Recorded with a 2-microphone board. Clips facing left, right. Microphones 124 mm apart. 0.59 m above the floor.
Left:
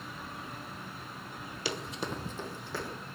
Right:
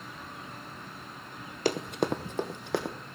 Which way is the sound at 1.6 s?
50° right (ahead or behind).